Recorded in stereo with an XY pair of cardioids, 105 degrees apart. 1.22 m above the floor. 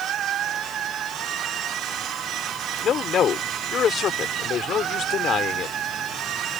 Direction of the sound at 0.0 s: 70° right.